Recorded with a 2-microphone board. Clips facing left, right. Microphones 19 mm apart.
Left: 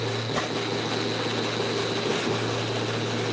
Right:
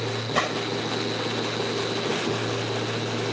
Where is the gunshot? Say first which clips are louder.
Right 5 dB; 40° right (ahead or behind).